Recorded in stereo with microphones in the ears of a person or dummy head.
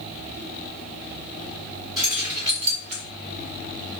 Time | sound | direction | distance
2.0 | keys jangling | 25° right (ahead or behind) | 1.8 m